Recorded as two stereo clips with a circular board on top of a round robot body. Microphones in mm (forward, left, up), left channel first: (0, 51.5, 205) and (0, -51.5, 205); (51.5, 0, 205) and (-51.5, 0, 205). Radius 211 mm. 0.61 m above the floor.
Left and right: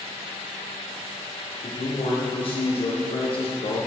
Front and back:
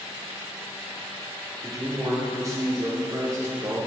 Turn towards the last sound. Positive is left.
turn(degrees=120)